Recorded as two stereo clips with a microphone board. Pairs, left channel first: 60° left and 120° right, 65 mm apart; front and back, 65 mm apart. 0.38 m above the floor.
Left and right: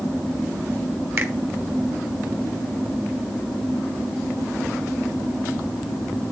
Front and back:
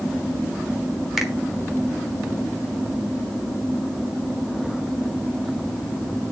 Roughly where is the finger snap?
Right.